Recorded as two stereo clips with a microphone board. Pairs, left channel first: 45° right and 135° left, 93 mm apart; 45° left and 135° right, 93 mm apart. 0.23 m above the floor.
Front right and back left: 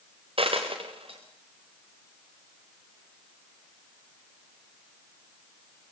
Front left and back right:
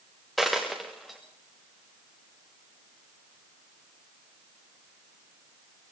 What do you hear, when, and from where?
0.4 s a dropped coin: 135° left, 4.5 m